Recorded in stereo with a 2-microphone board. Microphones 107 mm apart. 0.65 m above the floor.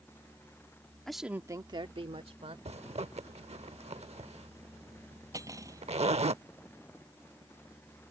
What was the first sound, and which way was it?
A woman speaking, 5° left (ahead or behind).